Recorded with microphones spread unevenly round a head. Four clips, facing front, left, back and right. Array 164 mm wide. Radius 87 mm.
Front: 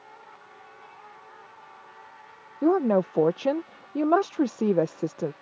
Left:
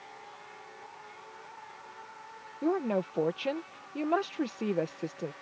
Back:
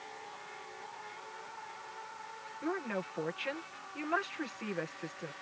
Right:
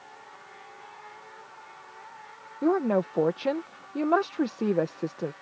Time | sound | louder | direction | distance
2.6 | a woman speaking | right 5 dB, front 16 dB | 20° right | ?